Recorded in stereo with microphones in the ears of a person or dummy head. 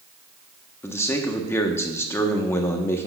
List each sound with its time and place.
0.8 s a man speaking: 15° left (ahead or behind), 0.9 m